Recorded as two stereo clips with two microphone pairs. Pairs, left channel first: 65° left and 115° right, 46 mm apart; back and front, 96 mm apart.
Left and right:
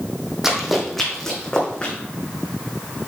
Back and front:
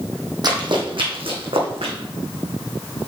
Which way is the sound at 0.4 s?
35° right.